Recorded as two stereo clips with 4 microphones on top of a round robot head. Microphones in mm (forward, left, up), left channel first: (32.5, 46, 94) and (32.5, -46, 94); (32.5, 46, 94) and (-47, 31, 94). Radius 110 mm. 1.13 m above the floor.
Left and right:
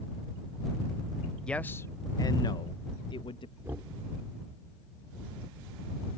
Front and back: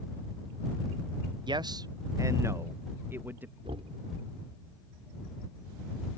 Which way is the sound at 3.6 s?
160° right.